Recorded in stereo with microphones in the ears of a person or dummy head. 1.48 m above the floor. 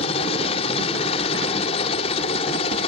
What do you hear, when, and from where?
0.0 s a helicopter: 40° left (ahead or behind)